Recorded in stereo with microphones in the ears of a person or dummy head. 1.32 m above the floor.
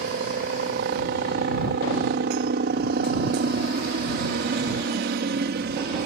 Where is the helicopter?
50° right (ahead or behind).